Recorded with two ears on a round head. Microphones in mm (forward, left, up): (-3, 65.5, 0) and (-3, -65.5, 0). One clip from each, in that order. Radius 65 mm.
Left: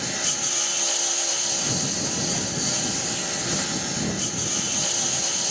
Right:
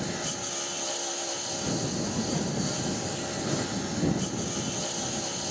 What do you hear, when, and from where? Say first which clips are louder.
0.0 s a lawn mower: left 7 dB; 50° left (ahead or behind)